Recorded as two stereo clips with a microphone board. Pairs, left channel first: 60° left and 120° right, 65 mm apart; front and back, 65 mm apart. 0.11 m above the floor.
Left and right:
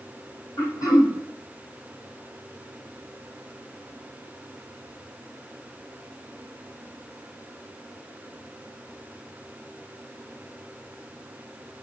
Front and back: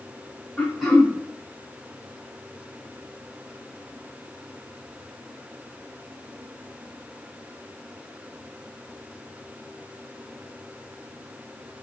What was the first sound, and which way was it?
Throat clearing, 85° left.